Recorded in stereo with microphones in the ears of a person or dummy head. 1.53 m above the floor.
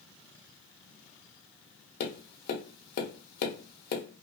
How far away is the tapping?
About 0.6 m.